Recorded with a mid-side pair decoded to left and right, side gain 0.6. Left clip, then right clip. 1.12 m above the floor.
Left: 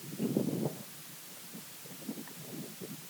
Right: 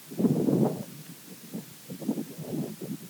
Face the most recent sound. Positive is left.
No sound to turn to.